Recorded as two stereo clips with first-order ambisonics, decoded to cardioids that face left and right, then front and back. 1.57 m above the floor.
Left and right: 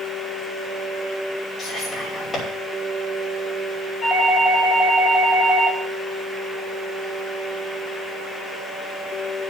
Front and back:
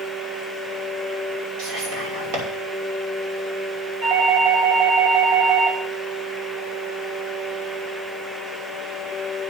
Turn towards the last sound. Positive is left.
turn(degrees=165)